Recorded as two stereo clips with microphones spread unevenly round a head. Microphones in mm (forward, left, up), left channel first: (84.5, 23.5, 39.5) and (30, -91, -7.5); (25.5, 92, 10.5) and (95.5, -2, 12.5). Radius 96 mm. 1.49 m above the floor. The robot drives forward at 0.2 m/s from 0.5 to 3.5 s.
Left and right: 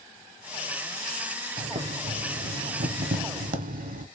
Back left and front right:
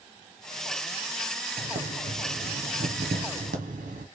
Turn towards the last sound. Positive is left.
turn(degrees=-100)